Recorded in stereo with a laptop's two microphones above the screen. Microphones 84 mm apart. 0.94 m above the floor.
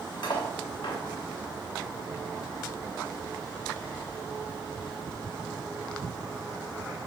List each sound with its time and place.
0.2 s cutlery clinking: 60° left (ahead or behind), 1.0 m